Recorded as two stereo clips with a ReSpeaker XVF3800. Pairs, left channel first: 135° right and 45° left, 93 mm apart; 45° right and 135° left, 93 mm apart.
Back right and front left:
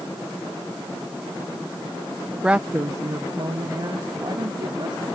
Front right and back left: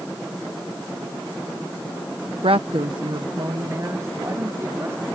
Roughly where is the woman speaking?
Behind left.